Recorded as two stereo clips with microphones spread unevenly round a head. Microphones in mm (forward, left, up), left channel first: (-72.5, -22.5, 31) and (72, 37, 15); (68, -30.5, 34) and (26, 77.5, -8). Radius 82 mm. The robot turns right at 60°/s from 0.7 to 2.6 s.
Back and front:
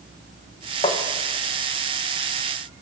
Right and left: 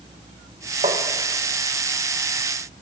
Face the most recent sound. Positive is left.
turn(degrees=-105)